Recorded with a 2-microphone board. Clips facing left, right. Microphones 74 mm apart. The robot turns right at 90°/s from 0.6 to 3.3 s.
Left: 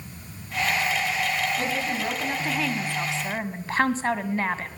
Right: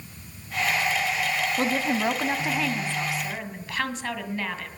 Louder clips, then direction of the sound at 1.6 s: Right 3 dB; 100° right.